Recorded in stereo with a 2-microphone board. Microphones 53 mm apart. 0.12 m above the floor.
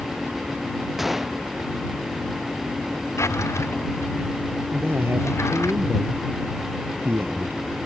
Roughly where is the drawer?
Left.